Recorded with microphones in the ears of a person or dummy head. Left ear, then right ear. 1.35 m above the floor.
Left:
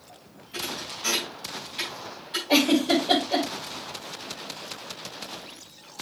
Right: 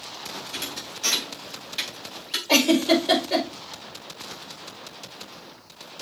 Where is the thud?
55° right (ahead or behind), 3.5 m.